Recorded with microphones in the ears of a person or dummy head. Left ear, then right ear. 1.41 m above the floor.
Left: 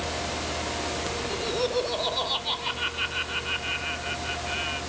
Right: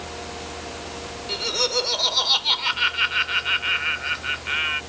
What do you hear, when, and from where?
1.3 s laughter: 65° right (ahead or behind)